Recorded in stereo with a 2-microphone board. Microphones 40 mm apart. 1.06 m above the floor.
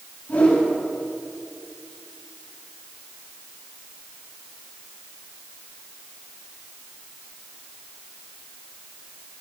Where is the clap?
No clap in this recording.